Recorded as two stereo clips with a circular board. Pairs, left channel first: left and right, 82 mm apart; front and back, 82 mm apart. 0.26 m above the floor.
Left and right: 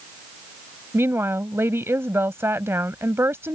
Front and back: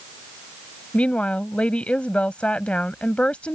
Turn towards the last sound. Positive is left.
turn(degrees=-65)